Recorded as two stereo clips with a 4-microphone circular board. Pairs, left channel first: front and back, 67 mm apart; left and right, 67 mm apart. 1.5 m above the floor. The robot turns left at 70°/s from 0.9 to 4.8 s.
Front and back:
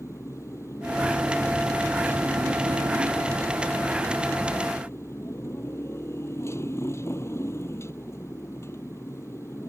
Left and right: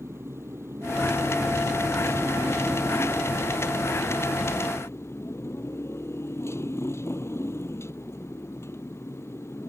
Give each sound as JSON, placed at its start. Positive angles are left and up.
{"t": 0.0, "sound": "a motorcycle", "azimuth_deg": -40}